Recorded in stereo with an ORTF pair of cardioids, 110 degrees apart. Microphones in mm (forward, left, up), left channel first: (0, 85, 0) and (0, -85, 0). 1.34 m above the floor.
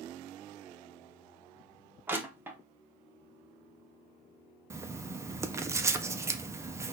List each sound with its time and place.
2.1 s crushing: 10° right, 0.9 m
4.7 s writing: 15° right, 0.5 m